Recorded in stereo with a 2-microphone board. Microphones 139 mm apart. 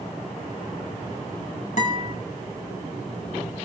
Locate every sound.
1.8 s a guitar: 60° left (ahead or behind), 5 m